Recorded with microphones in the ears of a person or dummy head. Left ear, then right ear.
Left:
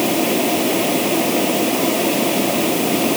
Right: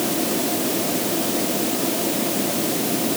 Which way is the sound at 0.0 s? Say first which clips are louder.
Left 6 dB; 70° left (ahead or behind).